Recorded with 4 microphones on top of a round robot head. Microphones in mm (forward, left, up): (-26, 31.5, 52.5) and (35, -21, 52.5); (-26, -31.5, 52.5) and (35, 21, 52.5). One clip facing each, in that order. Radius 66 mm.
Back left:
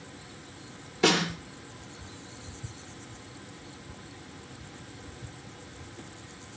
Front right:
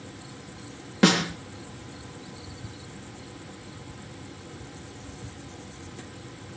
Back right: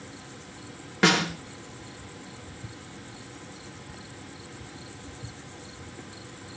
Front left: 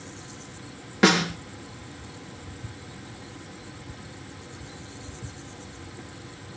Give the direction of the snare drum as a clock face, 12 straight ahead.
1 o'clock.